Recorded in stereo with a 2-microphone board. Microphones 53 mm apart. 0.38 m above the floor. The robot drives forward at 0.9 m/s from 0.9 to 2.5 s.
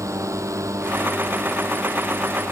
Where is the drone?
85° right.